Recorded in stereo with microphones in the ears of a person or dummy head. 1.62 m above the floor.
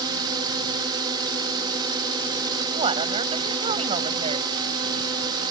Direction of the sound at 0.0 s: 25° right (ahead or behind).